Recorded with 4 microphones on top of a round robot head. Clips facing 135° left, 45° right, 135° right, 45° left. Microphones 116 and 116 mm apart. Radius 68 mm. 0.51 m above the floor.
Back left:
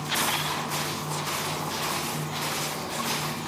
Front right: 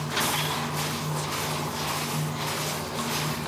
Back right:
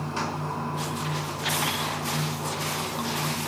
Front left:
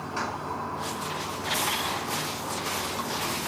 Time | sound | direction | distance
0.0 | running water | 60° right | 3 m